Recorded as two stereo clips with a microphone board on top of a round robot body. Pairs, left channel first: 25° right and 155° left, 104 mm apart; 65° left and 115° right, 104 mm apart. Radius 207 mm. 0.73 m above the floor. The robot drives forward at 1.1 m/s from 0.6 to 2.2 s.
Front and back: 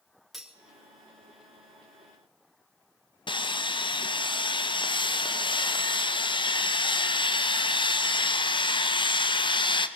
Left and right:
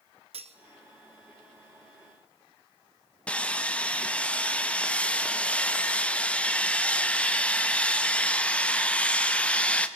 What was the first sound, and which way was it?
Cutlery clinking, 115° right.